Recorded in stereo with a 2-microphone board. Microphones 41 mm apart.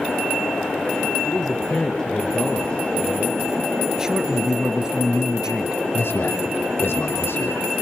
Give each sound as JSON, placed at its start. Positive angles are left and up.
{"t": 1.2, "sound": "a man speaking", "side_deg": 5, "distance_m": 2.5}
{"t": 4.0, "sound": "a man speaking", "side_deg": -15, "distance_m": 1.5}
{"t": 5.9, "sound": "a man speaking", "side_deg": 70, "distance_m": 5.5}